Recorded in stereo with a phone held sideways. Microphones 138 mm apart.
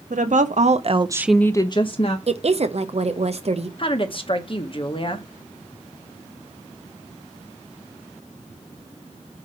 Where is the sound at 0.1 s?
80° right, 1.2 m; by 2.2 s 50° left (ahead or behind), 1.1 m.